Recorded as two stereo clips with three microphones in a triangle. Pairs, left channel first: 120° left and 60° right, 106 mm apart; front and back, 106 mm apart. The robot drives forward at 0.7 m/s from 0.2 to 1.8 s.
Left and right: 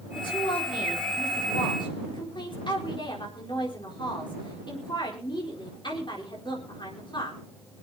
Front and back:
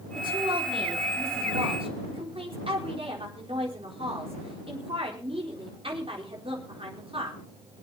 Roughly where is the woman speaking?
Behind left.